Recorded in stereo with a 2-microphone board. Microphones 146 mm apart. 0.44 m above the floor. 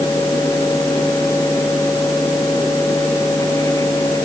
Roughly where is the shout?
No shout in this recording.